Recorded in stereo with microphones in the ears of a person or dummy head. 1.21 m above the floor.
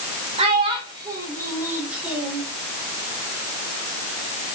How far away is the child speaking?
About 3.5 m.